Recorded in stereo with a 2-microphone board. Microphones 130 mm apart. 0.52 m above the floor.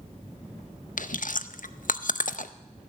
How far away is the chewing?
About 0.6 m.